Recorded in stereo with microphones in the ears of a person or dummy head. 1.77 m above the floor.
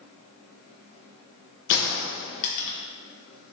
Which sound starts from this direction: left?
A gunshot, at 1.7 s.